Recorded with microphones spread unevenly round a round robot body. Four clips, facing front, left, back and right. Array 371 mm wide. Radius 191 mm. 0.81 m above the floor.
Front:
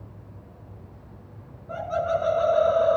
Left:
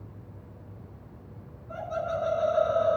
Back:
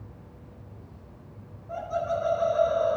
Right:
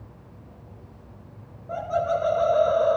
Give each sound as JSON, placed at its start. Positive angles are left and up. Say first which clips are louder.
{"t": 1.7, "sound": "laughter", "louder": "right 7 dB, front 3 dB", "azimuth_deg": -60, "distance_m": 2.5}